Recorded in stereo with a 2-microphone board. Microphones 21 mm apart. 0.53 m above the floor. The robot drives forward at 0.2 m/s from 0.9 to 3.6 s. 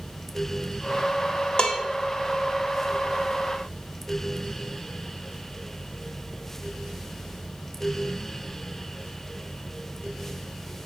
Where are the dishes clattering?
40° left (ahead or behind), 0.9 m.